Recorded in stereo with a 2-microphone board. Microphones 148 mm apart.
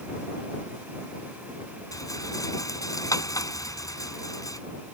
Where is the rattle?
25° left (ahead or behind).